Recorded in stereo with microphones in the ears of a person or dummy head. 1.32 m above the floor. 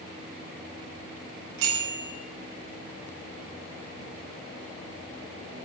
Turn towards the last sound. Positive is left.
turn(degrees=-85)